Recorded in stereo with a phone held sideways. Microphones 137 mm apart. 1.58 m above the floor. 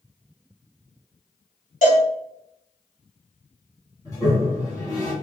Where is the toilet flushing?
25° left (ahead or behind), 2.5 m.